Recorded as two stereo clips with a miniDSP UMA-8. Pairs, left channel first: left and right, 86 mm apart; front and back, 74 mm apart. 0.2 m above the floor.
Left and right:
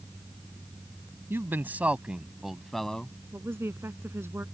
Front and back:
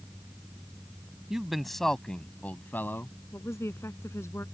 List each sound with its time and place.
1.3 s a man speaking: 105° right; by 3.2 s 20° left
3.3 s a woman speaking: 40° right